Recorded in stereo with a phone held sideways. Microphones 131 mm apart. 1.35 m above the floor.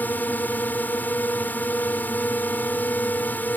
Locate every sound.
0.0 s a drone: 15° left (ahead or behind)